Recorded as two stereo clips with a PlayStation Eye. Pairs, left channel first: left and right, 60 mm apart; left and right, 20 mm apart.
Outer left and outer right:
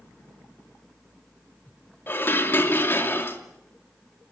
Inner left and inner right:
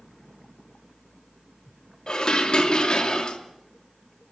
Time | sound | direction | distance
2.1 | dishes clattering | 40° left (ahead or behind) | 2.5 m